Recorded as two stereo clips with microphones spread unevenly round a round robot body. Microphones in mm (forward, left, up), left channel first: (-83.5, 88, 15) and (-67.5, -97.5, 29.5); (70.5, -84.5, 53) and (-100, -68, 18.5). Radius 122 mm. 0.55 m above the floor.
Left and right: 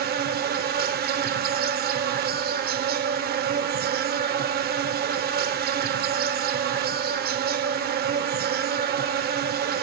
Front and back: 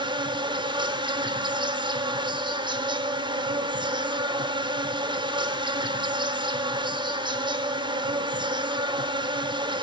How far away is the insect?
About 0.9 m.